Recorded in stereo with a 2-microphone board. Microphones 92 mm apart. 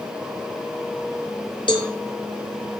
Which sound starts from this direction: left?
A cowbell, at 1.7 s.